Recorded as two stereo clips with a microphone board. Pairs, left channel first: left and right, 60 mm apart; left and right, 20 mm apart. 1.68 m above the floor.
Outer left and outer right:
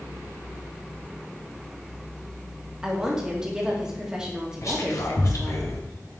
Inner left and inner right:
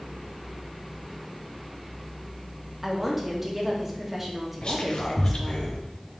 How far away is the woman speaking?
About 1.8 m.